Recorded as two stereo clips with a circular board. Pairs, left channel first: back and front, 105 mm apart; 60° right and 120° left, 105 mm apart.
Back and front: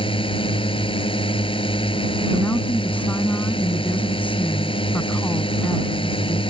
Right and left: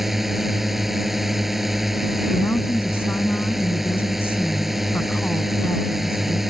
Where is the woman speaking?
115° right.